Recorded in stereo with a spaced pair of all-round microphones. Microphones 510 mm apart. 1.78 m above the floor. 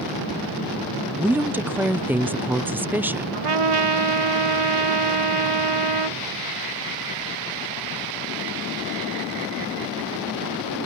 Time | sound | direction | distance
1.2 | a woman speaking | 5° right (ahead or behind) | ?
3.3 | a trumpet | 85° right | ?